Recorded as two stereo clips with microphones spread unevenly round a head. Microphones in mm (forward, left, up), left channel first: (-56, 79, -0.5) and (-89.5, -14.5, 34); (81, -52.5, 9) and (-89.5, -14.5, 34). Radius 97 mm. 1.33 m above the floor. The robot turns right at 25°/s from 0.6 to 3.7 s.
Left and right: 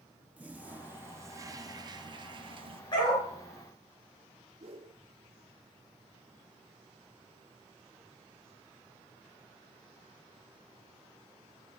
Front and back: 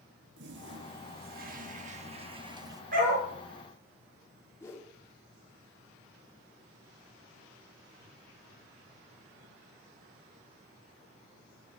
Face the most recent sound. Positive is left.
turn(degrees=-90)